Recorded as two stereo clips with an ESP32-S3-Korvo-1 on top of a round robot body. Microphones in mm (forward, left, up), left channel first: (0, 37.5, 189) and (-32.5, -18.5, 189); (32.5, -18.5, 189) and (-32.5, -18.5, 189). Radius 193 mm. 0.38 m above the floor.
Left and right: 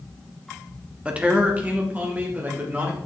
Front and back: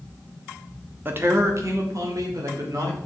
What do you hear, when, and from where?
1.1 s a man speaking: 175° right, 1.5 m; by 3.0 s straight behind, 3 m